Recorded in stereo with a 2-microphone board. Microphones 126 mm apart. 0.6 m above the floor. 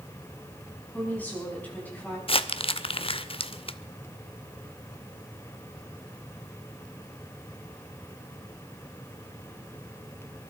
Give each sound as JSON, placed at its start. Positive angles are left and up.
{"t": 0.9, "sound": "a woman speaking", "side_deg": 15, "distance_m": 6.0}
{"t": 2.3, "sound": "crumpling", "side_deg": 45, "distance_m": 0.6}